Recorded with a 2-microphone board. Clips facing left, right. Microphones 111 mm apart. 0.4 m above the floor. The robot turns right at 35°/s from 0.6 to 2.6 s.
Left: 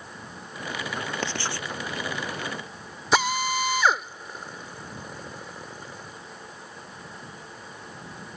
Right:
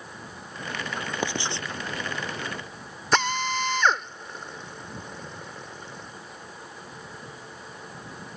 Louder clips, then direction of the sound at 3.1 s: Left 1 dB; 5° left (ahead or behind).